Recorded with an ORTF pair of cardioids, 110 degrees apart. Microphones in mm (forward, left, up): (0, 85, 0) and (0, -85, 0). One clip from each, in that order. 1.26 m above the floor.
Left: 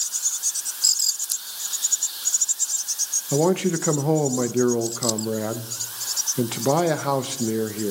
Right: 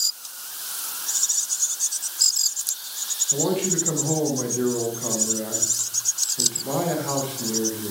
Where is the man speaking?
55° left, 0.9 m.